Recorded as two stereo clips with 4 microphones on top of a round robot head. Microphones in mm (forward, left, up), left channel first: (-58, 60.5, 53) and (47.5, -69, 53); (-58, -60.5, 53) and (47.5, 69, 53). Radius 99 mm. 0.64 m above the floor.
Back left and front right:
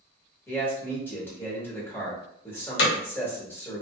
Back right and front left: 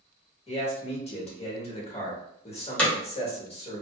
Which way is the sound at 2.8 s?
150° left.